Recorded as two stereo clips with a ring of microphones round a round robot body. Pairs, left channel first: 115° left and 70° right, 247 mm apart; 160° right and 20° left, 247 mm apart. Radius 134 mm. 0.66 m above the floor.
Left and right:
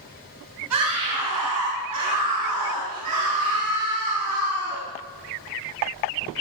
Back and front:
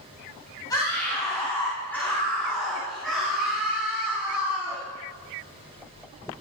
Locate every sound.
0.7 s a scream: 80° right, 4.5 m; by 4.8 s 60° right, 5.5 m